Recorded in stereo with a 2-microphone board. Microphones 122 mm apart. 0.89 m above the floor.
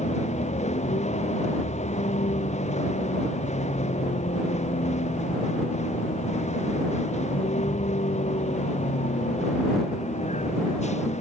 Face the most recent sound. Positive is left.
turn(degrees=70)  # may be behind; listen again after turning